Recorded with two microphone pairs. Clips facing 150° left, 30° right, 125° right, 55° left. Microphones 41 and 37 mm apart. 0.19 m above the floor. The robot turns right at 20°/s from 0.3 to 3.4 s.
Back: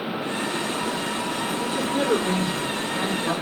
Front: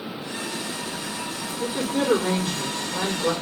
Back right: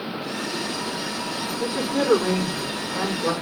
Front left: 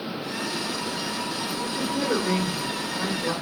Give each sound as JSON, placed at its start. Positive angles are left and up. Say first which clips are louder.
{"t": 1.6, "sound": "a woman speaking", "louder": "front 2 dB, back right 5 dB", "azimuth_deg": -130, "distance_m": 6.5}